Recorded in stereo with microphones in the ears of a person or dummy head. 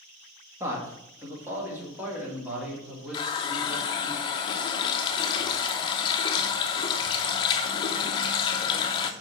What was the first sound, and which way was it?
A man speaking, 15° right (ahead or behind).